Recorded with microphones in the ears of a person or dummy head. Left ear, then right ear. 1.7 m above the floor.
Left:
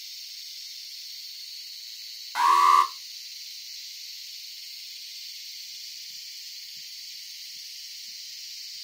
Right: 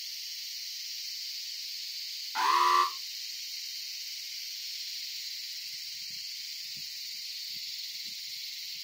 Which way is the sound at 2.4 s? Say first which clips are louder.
Left 6 dB; 40° left (ahead or behind).